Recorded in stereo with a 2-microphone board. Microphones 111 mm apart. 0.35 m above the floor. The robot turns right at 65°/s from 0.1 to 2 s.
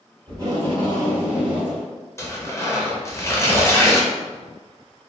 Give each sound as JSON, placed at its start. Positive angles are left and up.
{"t": 0.3, "sound": "tape being pulled", "azimuth_deg": -105, "distance_m": 1.7}
{"t": 2.2, "sound": "tearing paper", "side_deg": 20, "distance_m": 0.5}